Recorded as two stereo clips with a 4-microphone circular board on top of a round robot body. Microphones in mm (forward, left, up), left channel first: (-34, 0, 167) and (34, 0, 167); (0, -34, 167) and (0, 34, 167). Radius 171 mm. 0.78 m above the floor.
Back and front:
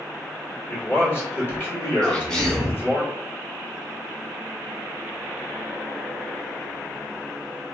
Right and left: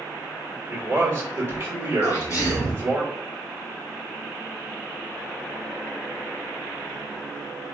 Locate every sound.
0.7 s a man speaking: 135° left, 1.5 m
2.0 s a sneeze: 105° right, 1.4 m